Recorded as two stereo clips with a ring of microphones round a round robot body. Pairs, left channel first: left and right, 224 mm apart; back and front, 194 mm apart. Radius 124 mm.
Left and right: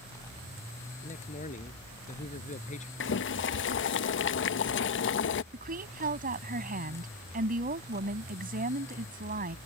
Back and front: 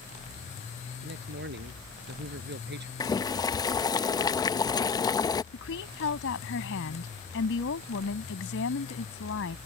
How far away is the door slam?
I don't hear a door slam.